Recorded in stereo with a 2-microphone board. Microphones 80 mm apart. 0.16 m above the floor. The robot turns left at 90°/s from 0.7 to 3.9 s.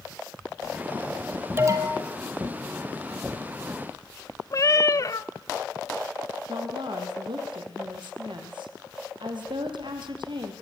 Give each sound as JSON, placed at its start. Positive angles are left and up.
{"t": 1.6, "sound": "an alarm", "azimuth_deg": -30, "distance_m": 4.0}
{"t": 4.5, "sound": "a cat meowing", "side_deg": 45, "distance_m": 0.6}
{"t": 6.5, "sound": "a woman speaking", "side_deg": -75, "distance_m": 4.5}